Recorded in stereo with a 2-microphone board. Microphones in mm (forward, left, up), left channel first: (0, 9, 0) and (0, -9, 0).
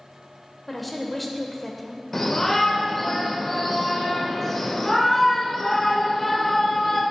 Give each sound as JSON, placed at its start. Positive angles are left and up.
{"t": 0.7, "sound": "a woman speaking", "side_deg": 5, "distance_m": 0.9}
{"t": 2.1, "sound": "a shout", "side_deg": 15, "distance_m": 0.9}